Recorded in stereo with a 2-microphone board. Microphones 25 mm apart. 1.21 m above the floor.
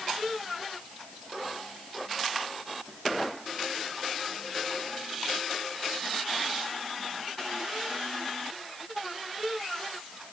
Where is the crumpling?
I don't hear crumpling.